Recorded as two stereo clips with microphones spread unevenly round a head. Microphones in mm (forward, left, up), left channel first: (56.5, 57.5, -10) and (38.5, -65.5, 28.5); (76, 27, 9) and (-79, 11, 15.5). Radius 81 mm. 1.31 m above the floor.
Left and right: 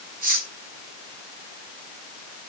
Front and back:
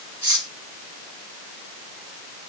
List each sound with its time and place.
0.2 s cutlery clinking: 95° right, 6.5 m